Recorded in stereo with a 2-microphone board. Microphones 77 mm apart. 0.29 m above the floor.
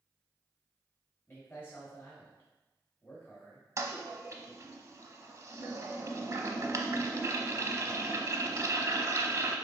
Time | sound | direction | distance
1.3 | a man speaking | 30° left (ahead or behind) | 1.4 m
3.8 | a toilet flushing | 45° right (ahead or behind) | 0.6 m